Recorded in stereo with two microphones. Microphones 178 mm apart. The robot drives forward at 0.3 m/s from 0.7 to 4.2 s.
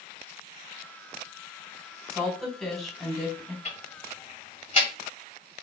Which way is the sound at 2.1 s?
Centre (ahead or behind).